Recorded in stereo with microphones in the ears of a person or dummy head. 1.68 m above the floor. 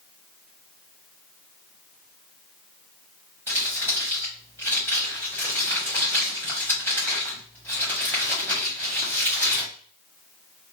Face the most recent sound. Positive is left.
turn(degrees=10)  # may be behind; listen again after turning